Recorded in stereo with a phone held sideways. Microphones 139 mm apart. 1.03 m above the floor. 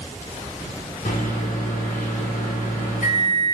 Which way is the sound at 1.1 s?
70° left (ahead or behind).